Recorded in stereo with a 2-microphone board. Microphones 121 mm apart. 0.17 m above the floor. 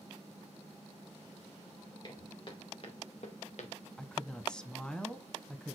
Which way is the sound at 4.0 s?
5° left (ahead or behind).